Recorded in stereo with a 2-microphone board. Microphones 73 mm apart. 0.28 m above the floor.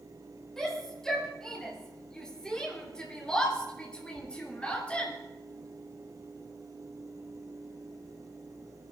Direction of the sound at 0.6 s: 5° left (ahead or behind).